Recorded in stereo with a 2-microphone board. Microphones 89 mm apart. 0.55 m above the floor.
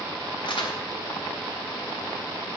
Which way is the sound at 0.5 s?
60° left (ahead or behind).